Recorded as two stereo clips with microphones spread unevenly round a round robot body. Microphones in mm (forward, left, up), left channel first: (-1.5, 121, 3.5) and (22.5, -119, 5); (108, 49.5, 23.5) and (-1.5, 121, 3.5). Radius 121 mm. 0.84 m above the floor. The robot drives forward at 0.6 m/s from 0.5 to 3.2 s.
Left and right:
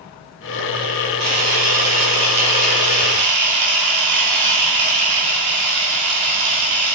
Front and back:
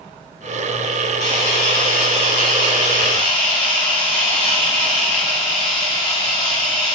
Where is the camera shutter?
70° right, 4.5 m; by 7.0 s 85° right, 4.5 m.